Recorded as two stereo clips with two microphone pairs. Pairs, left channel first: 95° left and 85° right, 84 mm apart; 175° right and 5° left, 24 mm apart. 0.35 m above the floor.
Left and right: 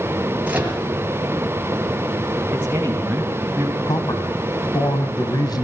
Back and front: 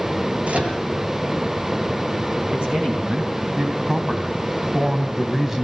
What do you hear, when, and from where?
0.5 s a microwave: 15° right, 5.5 m
2.5 s a man speaking: 20° right, 4 m
3.9 s a man speaking: 75° left, 2.5 m